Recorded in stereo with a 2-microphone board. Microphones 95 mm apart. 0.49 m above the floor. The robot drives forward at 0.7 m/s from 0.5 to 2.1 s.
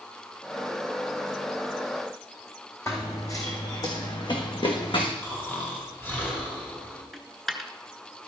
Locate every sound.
2.9 s running footsteps: 30° left (ahead or behind), 1.6 m; by 5.1 s 65° left (ahead or behind), 2 m
5.2 s snoring: 20° left (ahead or behind), 2.5 m
7.1 s a dropped coin: centre (ahead or behind), 0.9 m